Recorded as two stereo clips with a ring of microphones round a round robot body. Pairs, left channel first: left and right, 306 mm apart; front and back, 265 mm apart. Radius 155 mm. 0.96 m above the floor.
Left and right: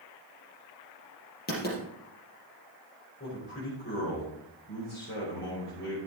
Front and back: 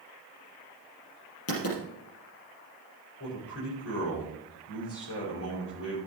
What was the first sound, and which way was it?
Writing, 30° left.